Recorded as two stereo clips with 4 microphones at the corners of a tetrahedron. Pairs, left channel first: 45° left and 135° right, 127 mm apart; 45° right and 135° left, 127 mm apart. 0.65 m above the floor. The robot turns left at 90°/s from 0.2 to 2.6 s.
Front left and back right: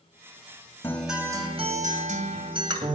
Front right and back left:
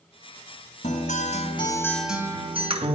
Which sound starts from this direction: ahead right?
A guitar, at 0.8 s.